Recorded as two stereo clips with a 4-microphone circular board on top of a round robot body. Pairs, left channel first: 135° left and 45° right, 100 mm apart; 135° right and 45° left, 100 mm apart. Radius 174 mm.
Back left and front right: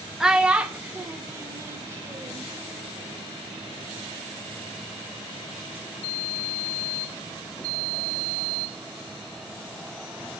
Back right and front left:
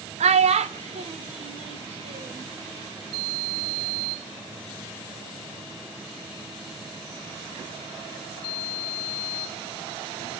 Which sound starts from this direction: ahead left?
A child speaking, at 0.2 s.